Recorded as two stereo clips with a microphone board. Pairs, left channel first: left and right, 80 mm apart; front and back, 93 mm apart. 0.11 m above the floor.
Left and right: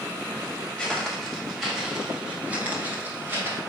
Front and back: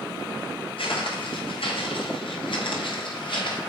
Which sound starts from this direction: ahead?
Footsteps, at 0.8 s.